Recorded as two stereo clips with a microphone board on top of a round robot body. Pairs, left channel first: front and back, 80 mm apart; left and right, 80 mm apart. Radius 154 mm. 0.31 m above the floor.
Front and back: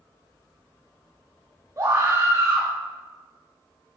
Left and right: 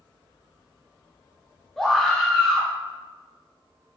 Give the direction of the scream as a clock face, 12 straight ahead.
6 o'clock.